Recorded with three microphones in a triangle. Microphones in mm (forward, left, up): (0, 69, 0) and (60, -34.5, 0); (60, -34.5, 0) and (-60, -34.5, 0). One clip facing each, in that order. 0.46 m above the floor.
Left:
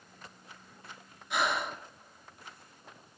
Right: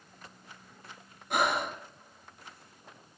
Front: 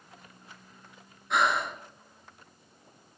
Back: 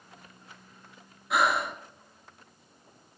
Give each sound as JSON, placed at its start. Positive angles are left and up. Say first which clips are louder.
{"t": 1.3, "sound": "breathing", "louder": "right 3 dB, back 1 dB", "azimuth_deg": -95, "distance_m": 1.0}